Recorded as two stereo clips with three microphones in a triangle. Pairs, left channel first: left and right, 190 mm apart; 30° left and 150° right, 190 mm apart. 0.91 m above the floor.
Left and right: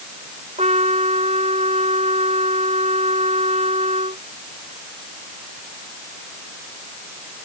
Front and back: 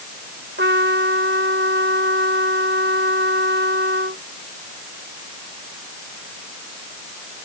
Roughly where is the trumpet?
Behind right.